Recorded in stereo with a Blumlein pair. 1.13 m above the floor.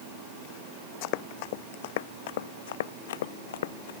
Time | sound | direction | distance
1.0 | running footsteps | 45° left | ?